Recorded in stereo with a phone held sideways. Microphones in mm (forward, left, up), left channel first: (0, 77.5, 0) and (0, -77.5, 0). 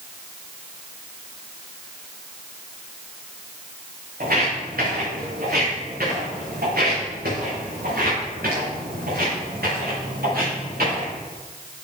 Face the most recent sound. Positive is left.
turn(degrees=-85)